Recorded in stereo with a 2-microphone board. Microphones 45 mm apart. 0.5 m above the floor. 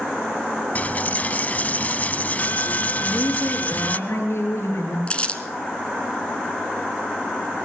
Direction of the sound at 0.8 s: 35° left (ahead or behind).